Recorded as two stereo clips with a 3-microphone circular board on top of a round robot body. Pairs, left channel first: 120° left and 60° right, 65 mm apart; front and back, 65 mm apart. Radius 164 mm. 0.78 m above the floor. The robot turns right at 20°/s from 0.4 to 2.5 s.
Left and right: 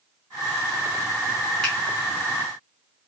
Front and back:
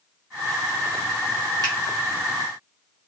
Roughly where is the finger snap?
Behind right.